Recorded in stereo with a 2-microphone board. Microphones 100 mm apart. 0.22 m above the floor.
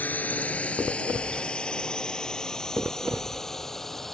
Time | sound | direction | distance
0.0 | a drone | 15° left (ahead or behind) | ?